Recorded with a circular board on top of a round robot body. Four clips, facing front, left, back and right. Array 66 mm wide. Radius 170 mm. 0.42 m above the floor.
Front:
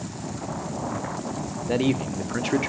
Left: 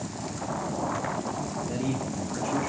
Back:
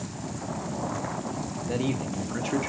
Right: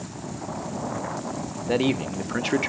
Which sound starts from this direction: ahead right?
A man speaking, at 1.7 s.